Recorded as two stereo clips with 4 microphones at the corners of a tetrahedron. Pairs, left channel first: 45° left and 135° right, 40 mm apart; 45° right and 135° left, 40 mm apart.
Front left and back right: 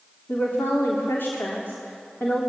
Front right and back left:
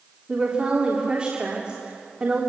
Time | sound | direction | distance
0.3 | a woman speaking | 70° left | 3.5 m